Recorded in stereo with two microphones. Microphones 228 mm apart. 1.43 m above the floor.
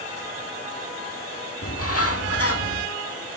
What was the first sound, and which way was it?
A bird, 70° left (ahead or behind).